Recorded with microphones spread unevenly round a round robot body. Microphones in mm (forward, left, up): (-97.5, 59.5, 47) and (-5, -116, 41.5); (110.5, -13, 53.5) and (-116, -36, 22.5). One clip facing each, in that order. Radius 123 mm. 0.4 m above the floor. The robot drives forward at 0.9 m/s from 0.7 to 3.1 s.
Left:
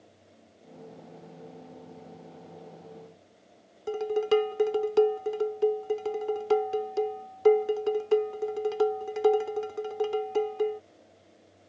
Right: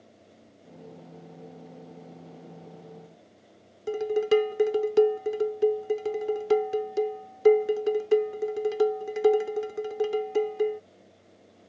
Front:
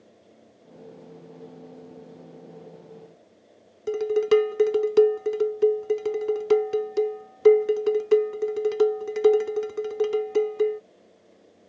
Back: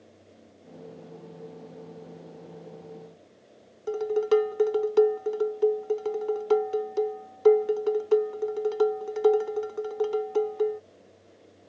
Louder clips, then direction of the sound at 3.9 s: Right 2 dB, front 3 dB; 15° right.